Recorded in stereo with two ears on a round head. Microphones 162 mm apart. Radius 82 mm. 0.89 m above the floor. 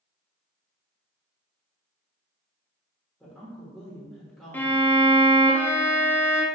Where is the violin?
10° left (ahead or behind), 0.6 m.